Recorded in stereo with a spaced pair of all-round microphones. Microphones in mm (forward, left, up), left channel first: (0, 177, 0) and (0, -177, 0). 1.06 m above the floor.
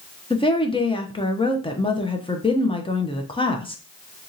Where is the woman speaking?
15° left (ahead or behind), 0.5 m.